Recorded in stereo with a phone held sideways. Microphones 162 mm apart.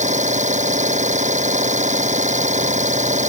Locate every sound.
0.0 s an engine running: 50° right (ahead or behind)